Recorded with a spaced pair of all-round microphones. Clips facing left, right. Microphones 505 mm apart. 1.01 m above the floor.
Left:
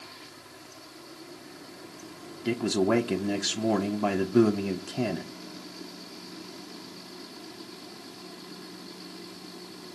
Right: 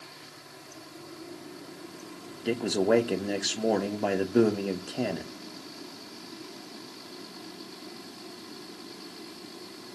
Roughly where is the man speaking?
Left.